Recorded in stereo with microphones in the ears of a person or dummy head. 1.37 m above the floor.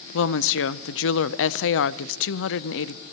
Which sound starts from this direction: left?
A woman speaking, at 0.1 s.